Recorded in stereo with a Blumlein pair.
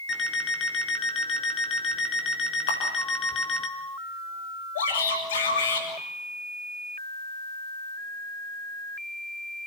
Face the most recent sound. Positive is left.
turn(degrees=60)